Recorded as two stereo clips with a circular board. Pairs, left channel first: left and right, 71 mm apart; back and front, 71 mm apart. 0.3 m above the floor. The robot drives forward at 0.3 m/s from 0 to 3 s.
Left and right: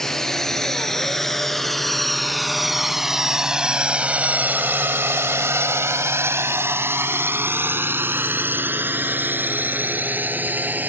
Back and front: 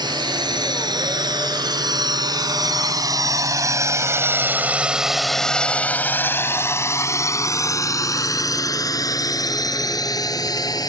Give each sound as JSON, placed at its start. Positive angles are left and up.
{"t": 0.0, "sound": "a drone", "azimuth_deg": 10}